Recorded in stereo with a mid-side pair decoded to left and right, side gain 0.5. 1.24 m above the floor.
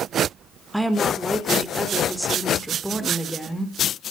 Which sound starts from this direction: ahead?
A woman speaking, at 0.7 s.